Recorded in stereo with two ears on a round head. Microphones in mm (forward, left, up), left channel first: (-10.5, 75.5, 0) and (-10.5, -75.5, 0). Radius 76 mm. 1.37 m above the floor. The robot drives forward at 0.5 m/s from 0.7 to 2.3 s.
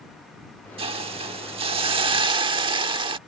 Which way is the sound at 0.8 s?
35° right (ahead or behind).